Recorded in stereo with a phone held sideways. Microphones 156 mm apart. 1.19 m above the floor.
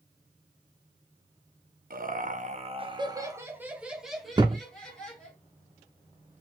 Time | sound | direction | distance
1.9 | laughter | 70° right (ahead or behind) | 1.0 m
4.4 | a thud | 30° right (ahead or behind) | 0.9 m